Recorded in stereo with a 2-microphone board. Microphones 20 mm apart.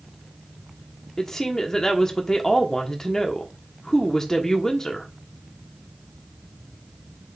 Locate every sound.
1.2 s a woman speaking: 25° left (ahead or behind), 1.3 m